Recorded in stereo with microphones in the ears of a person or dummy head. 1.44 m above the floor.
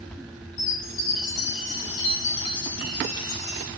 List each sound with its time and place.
0.6 s a chime: 80° left, 5 m